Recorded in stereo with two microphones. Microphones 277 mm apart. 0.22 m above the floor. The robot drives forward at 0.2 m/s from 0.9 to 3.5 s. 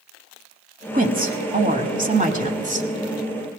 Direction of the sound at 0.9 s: 30° right (ahead or behind).